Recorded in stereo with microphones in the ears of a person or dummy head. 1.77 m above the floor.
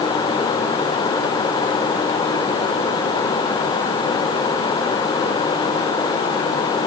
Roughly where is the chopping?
No chopping in this recording.